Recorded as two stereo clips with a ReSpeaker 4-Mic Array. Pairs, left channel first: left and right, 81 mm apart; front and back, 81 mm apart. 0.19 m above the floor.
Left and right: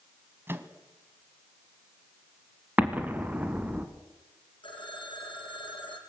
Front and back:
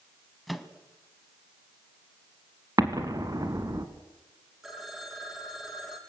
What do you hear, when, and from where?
0.5 s a microwave: 90° right, 1.3 m
2.8 s an explosion: 155° right, 1.9 m
4.6 s a phone ringing: 95° left, 4.5 m